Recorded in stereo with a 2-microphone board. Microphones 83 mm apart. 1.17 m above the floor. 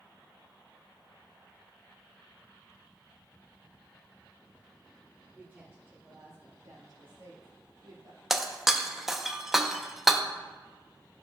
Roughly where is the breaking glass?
Centre.